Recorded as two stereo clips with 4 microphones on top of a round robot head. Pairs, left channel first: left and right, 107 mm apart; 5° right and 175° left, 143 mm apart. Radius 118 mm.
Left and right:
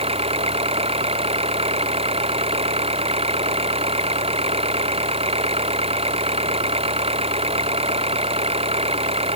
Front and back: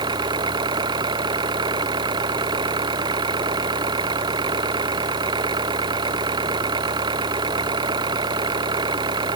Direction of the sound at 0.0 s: 120° right.